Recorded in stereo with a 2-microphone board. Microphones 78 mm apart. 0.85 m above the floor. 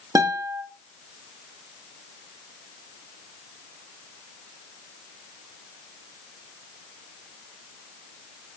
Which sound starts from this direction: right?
A guitar, at 0.1 s.